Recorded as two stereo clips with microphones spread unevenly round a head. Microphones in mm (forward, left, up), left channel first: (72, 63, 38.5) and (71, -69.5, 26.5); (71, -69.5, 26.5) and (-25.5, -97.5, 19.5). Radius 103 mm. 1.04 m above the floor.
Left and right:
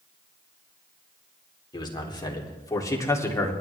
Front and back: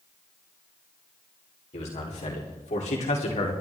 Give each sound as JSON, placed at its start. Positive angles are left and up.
{"t": 1.7, "sound": "a man speaking", "azimuth_deg": 35, "distance_m": 3.5}